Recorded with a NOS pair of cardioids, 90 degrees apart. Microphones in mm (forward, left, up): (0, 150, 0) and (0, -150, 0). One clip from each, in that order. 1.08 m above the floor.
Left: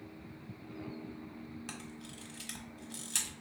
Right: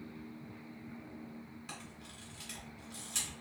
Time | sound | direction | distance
1.7 | a camera shutter | 55° left | 1.4 m